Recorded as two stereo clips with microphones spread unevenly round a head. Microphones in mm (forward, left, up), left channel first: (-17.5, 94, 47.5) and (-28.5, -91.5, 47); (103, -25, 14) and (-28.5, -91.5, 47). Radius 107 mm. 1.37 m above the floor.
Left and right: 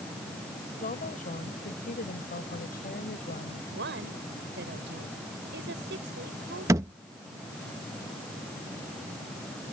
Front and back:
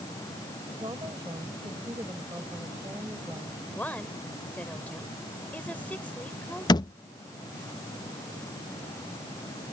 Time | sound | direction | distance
0.8 | a woman speaking | 135° left | ?
3.7 | a woman speaking | 55° right | ?
6.7 | a thud | 35° right | ?